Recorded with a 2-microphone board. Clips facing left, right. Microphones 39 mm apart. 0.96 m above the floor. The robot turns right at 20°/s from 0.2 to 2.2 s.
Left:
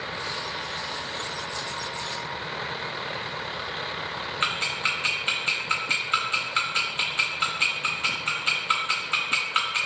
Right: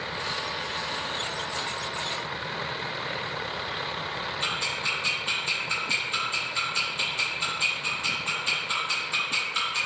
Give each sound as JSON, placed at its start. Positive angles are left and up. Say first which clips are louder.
{"t": 4.4, "sound": "ticking", "louder": "left 4 dB", "side_deg": 45, "distance_m": 1.0}